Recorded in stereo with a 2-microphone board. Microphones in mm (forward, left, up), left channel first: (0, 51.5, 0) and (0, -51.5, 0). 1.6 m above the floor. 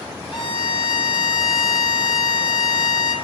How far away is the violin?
About 1.7 m.